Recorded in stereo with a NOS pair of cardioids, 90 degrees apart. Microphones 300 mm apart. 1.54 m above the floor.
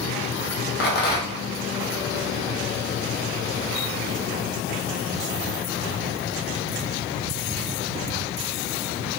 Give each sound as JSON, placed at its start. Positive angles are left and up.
{"t": 0.8, "sound": "a rattle", "azimuth_deg": 35, "distance_m": 1.1}